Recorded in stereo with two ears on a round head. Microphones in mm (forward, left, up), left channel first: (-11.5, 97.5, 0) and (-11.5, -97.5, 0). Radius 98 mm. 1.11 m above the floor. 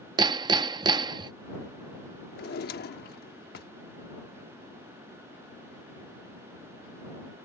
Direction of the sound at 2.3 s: 45° left (ahead or behind).